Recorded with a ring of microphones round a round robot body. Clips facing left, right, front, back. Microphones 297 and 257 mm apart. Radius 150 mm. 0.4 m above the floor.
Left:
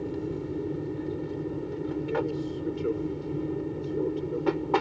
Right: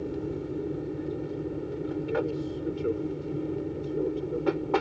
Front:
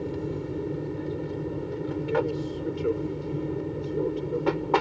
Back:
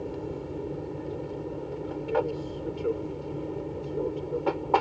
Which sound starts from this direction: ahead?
An aircraft, at 0.0 s.